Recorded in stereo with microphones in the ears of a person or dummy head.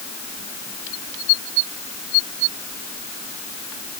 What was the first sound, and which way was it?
Only background noise.